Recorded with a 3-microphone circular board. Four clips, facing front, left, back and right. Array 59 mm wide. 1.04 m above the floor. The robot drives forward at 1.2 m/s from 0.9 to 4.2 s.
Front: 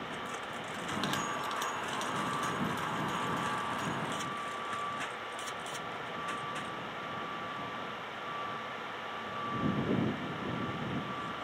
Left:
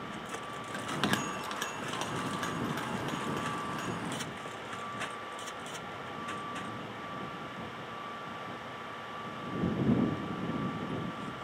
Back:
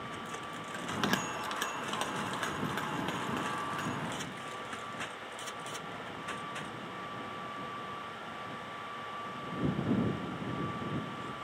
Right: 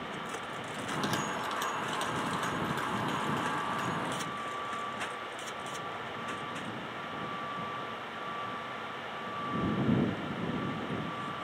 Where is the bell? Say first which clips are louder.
Left 1 dB, back 2 dB; 115° left, 0.7 m; by 4.0 s 170° left, 4 m.